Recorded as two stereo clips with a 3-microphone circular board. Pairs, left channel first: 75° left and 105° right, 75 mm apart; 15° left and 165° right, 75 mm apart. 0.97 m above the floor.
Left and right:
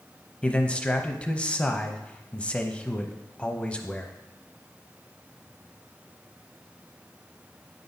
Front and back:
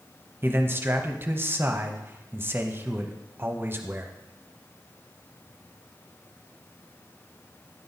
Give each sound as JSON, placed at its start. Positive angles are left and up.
{"t": 0.4, "sound": "a man speaking", "azimuth_deg": 140, "distance_m": 0.7}